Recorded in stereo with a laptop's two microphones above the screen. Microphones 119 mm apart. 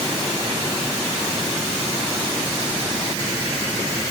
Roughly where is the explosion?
I don't hear an explosion.